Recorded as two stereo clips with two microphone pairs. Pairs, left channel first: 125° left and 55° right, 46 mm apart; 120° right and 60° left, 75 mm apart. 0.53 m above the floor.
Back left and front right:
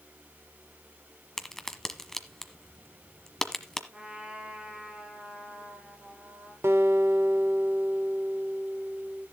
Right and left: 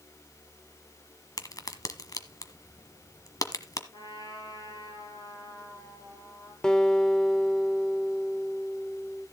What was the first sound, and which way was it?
A crack, 155° right.